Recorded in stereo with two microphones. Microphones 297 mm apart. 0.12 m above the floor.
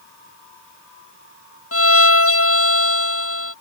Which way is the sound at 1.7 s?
45° left (ahead or behind).